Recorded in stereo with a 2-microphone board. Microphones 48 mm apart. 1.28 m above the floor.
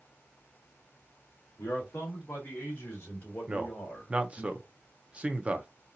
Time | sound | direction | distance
1.6 | a man speaking | 65° left (ahead or behind) | 2 m
3.5 | a man speaking | 25° right (ahead or behind) | 0.6 m